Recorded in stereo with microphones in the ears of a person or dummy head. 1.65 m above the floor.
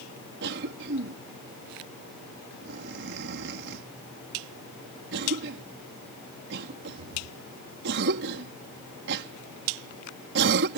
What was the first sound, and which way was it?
A cough, 70° right (ahead or behind).